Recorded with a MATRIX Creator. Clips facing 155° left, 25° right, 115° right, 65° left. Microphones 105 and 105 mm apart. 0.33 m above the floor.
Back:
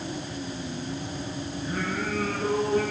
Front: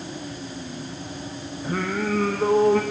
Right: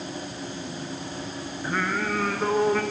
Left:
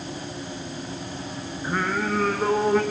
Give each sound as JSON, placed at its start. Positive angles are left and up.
{"t": 1.6, "sound": "singing", "azimuth_deg": -10, "distance_m": 3.5}